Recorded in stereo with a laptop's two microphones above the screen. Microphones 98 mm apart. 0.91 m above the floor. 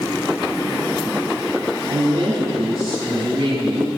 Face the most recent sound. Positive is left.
turn(degrees=-60)  # may be behind; listen again after turning